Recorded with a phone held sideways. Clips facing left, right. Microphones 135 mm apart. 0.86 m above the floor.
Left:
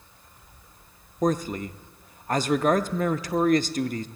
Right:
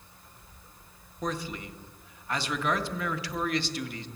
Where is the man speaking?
45° left (ahead or behind), 0.7 m.